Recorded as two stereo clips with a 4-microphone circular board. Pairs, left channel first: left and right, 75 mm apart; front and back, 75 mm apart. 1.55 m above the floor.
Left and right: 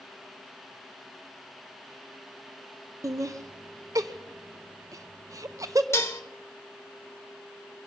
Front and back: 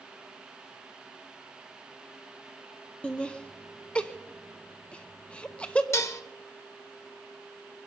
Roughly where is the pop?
I don't hear a pop.